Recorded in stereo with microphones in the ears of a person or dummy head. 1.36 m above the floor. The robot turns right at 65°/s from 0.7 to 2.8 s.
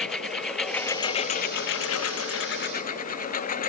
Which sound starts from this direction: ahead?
A lawn mower, at 0.0 s.